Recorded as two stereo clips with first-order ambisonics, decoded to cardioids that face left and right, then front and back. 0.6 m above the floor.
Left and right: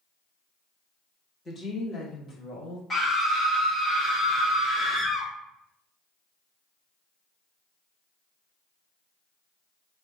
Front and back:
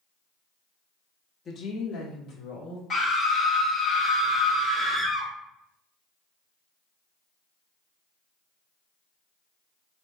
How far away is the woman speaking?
About 0.7 m.